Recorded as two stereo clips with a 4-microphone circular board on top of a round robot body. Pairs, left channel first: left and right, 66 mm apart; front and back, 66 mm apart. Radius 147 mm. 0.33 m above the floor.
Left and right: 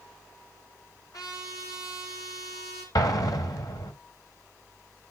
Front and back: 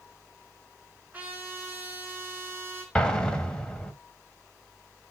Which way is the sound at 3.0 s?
80° left.